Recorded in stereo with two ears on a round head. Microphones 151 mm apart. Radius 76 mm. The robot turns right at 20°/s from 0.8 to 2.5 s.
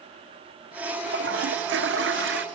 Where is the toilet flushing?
70° right (ahead or behind).